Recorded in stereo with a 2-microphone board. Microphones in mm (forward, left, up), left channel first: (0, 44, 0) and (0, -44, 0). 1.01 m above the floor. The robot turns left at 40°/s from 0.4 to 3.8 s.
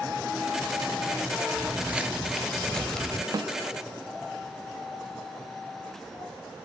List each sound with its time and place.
1.6 s footsteps: 25° right (ahead or behind), 1.1 m; by 3.2 s 10° left (ahead or behind), 1.4 m
3.3 s a snare drum: 45° right (ahead or behind), 0.6 m